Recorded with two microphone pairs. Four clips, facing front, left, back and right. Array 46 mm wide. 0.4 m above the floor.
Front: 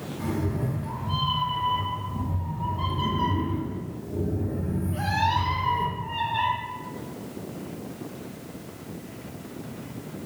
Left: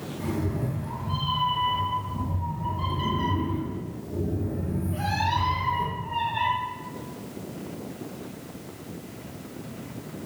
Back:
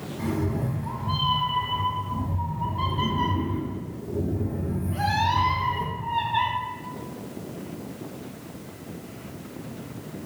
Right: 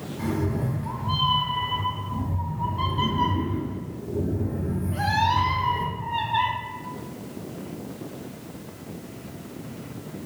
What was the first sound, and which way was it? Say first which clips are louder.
A cat meowing: right 3 dB, back 2 dB; 130° right.